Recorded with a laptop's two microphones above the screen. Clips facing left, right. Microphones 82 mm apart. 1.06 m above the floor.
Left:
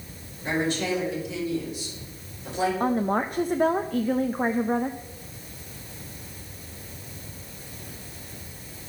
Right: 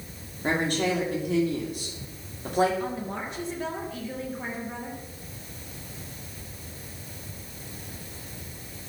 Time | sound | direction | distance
0.4 | a woman speaking | 50° right (ahead or behind) | 3 m
2.8 | a woman speaking | 50° left (ahead or behind) | 0.7 m